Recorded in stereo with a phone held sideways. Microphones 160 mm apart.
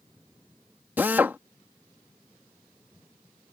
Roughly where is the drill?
Centre.